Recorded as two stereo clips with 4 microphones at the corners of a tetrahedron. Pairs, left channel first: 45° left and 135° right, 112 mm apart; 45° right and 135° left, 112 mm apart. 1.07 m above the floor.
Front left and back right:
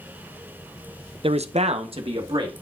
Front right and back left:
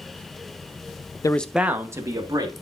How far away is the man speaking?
About 0.5 m.